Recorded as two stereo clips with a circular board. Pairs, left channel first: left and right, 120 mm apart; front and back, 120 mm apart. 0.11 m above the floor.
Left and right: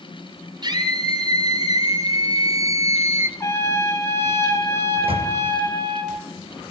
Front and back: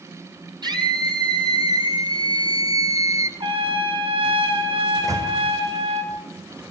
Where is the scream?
135° right, 4 m; by 3.3 s 140° right, 1.8 m.